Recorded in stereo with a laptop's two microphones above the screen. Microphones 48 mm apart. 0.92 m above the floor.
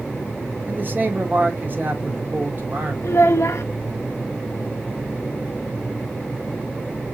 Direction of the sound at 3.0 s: 70° left (ahead or behind).